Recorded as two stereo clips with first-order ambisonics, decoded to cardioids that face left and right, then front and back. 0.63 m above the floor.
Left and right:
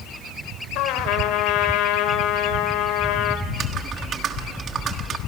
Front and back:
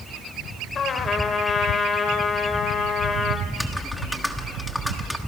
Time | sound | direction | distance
0.8 | a trumpet | 65° left | 2 m
3.5 | typing on a keyboard | 85° right | 1.4 m